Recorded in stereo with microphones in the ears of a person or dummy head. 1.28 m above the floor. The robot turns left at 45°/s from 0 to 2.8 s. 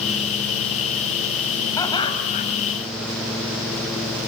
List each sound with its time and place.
1.8 s laughter: 165° left, 7.5 m; by 2.5 s 130° left, 7.5 m